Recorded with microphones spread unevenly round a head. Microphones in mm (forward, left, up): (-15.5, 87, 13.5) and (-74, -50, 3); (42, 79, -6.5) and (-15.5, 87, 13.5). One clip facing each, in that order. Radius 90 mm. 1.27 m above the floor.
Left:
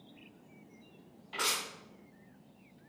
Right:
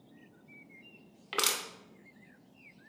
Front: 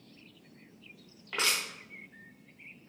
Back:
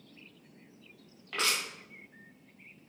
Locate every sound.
1.3 s crushing: 100° right, 0.7 m